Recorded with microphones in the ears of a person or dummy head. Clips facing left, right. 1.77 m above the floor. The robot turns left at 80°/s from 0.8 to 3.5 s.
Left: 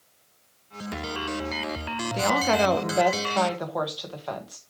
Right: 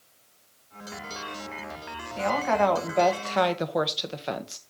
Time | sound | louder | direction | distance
2.1 | a woman speaking | left 1 dB | 80° left | 1.3 m